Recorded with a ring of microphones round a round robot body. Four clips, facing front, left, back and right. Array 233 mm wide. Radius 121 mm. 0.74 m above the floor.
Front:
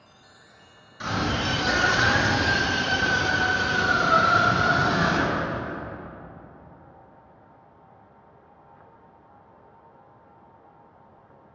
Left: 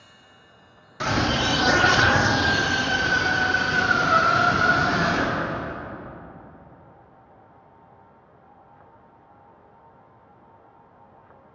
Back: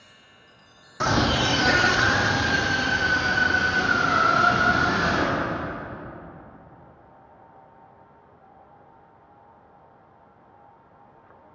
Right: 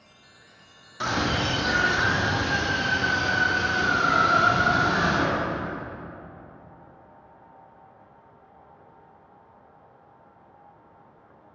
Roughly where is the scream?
Behind.